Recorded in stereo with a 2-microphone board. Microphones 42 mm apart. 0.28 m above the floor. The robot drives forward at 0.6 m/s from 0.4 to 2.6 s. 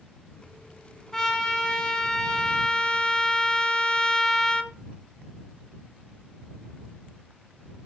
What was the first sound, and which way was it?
A trumpet, 10° left (ahead or behind).